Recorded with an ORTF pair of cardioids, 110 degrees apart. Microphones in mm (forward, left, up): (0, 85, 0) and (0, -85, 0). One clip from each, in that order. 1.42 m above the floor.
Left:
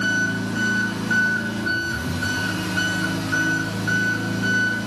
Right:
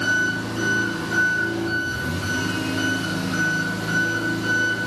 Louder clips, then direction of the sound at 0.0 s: Right 1 dB; 60° left.